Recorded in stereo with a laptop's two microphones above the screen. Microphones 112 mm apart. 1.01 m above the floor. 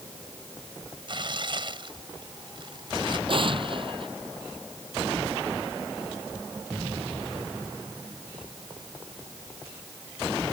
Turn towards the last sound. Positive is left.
turn(degrees=-50)  # may be behind; listen again after turning